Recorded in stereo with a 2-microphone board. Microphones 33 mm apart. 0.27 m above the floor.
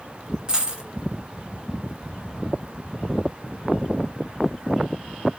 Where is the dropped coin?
20° right (ahead or behind), 2.0 m.